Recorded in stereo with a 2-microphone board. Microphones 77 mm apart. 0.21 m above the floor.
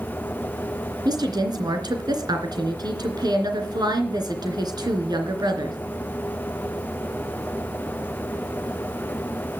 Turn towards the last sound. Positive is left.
turn(degrees=-55)  # may be behind; listen again after turning